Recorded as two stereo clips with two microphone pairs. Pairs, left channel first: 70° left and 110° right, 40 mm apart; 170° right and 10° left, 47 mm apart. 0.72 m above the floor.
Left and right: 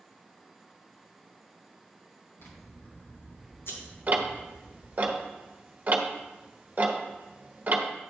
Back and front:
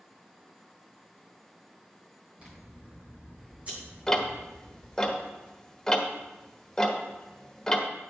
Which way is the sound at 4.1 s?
95° right.